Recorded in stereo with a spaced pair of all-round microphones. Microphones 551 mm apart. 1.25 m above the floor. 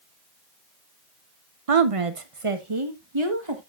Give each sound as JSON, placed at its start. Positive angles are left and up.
{"t": 1.7, "sound": "a woman speaking", "side_deg": -80, "distance_m": 1.0}